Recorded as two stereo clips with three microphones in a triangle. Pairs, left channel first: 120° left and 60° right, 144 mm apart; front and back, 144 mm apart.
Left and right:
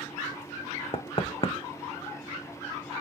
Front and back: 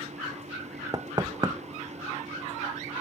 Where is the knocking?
130° left, 0.9 m.